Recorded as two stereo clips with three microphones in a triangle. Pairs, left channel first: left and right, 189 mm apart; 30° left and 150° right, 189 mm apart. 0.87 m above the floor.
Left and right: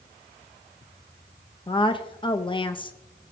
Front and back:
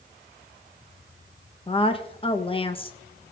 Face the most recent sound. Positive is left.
turn(degrees=55)